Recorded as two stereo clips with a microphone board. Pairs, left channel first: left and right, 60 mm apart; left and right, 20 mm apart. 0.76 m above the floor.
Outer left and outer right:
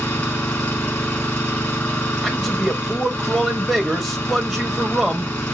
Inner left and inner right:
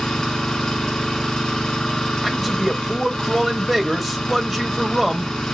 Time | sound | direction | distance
0.0 | an engine running | 25° left (ahead or behind) | 3 m
2.2 | a man speaking | centre (ahead or behind) | 1.3 m